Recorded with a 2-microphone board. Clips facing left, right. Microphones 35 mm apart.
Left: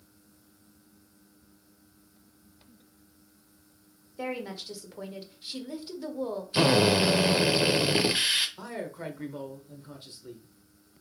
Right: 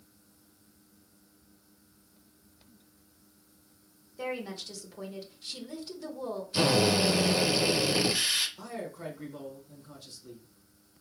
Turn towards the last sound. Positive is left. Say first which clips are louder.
# left 2 dB
turn(degrees=30)  # may be behind; listen again after turning